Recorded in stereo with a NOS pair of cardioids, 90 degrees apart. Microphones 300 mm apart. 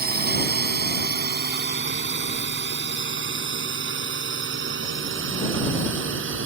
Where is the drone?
35° right; by 6.5 s 50° right.